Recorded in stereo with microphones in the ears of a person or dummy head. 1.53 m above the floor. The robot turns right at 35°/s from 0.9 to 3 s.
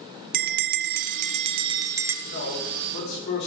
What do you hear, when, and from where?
0.3 s a bell: 50° right, 0.5 m; by 2.1 s 10° right, 0.5 m
2.2 s a man speaking: 80° left, 4.5 m; by 3.5 s 55° left (ahead or behind), 4.5 m